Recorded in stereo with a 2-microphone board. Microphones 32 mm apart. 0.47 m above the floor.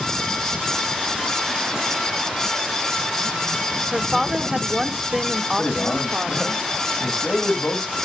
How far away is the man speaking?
About 2.5 m.